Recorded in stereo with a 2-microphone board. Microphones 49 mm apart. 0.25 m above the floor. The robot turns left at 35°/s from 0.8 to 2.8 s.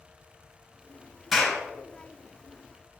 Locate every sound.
1.3 s a clap: centre (ahead or behind), 4 m; by 1.6 s 10° left (ahead or behind), 4 m